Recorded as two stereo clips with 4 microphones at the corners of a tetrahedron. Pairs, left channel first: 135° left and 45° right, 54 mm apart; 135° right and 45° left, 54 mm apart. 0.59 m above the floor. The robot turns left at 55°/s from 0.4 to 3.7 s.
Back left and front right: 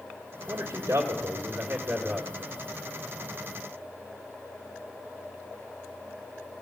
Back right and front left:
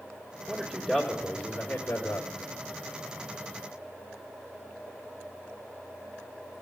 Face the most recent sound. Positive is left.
turn(degrees=165)